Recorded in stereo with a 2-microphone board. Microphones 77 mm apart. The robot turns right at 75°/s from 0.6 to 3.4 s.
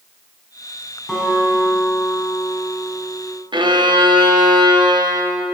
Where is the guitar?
175° left, 4.5 m; by 3.3 s 20° right, 4.5 m.